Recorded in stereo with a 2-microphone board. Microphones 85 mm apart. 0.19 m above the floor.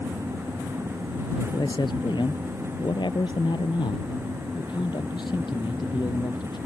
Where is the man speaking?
65° left (ahead or behind).